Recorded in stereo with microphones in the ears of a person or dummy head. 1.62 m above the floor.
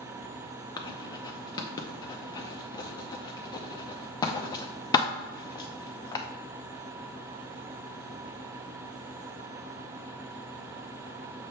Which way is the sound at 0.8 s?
15° left (ahead or behind).